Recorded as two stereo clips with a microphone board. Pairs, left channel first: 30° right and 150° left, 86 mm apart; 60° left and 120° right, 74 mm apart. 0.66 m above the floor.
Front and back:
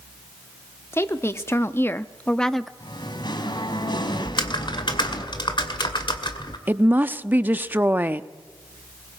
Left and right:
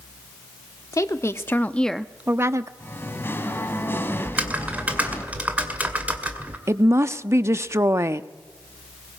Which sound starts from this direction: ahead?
Singing, at 2.8 s.